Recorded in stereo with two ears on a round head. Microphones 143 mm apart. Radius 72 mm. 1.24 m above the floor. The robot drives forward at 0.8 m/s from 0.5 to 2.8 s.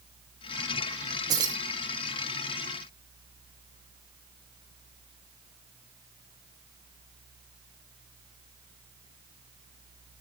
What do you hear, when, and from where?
1.3 s keys jangling: 25° right (ahead or behind), 1.4 m